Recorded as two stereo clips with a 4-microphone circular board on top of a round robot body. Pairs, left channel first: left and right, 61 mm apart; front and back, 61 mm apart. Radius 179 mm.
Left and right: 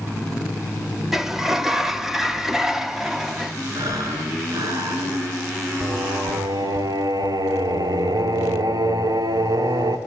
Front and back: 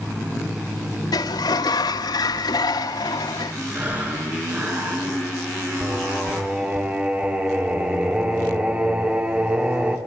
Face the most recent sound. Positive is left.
turn(degrees=-110)